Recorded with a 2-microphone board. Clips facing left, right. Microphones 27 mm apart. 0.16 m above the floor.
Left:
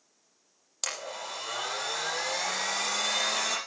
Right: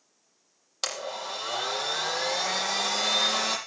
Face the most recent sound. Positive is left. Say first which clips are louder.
# right 3 dB
turn(degrees=-25)  # may be behind; listen again after turning